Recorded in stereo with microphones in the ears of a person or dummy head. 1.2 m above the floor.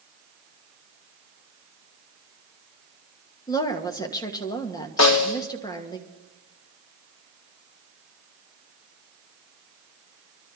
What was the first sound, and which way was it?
A woman speaking, 20° left (ahead or behind).